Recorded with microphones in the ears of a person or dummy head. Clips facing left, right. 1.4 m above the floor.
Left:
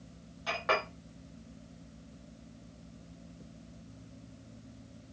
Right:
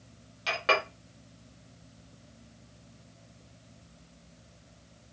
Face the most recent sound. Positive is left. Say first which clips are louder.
# right 3 dB
turn(degrees=-35)  # may be behind; listen again after turning